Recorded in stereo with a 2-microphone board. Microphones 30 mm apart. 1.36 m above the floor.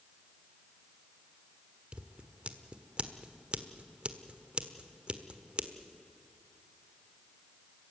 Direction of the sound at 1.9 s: 40° right (ahead or behind).